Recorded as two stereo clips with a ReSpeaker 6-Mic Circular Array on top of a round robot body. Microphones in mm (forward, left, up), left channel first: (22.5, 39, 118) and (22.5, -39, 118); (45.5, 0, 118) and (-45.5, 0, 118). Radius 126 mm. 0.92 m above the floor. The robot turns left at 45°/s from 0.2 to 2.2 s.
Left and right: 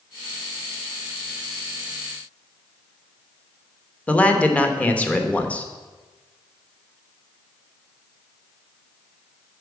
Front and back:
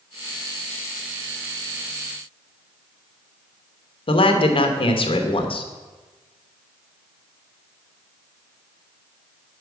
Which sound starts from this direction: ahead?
A man speaking, at 4.1 s.